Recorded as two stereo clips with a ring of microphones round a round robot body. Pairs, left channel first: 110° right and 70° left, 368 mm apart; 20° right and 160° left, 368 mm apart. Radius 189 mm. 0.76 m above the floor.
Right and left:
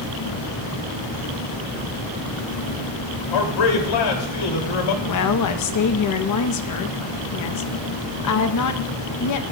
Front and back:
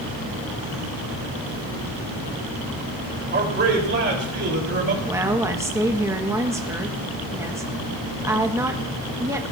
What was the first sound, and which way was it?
A man speaking, 140° right.